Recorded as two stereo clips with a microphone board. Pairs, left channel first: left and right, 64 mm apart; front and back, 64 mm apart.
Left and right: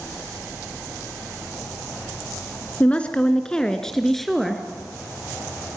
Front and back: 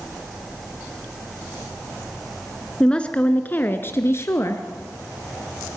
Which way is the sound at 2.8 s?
60° left.